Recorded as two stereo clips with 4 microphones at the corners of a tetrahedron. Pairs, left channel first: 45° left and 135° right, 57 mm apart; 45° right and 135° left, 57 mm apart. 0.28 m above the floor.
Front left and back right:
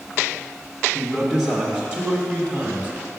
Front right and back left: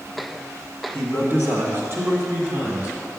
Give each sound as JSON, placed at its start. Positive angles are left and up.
{"t": 0.9, "sound": "a man speaking", "azimuth_deg": 140, "distance_m": 1.8}